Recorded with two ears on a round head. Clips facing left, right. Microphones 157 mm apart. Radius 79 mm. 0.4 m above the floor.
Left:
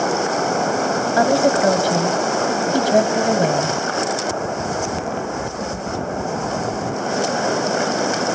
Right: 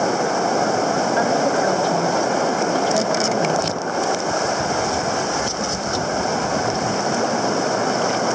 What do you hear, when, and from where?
1.2 s a woman speaking: 60° left (ahead or behind), 2 m